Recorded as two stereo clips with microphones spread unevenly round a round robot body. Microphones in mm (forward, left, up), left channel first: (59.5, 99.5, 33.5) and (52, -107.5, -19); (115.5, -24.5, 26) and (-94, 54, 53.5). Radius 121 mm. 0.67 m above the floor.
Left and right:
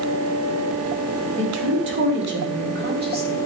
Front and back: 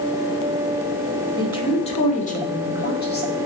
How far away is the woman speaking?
About 2.5 m.